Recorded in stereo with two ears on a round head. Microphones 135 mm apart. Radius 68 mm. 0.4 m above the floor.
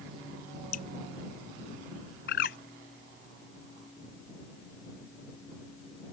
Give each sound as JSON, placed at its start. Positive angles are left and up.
{"t": 0.7, "sound": "dripping", "side_deg": 55}
{"t": 2.3, "sound": "a bird", "side_deg": 65}